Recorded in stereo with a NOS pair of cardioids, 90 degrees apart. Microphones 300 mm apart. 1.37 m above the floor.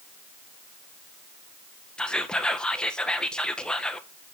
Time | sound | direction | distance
2.0 | whispering | 5° left | 1.2 m